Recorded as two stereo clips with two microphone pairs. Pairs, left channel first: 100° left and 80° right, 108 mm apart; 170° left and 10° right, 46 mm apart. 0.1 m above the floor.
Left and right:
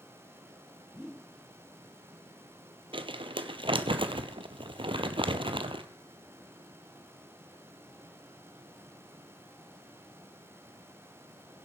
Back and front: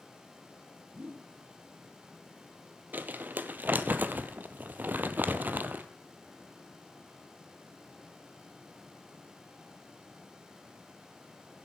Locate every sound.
0.9 s a whoosh: 20° left, 0.7 m
2.9 s crumpling: 50° right, 0.8 m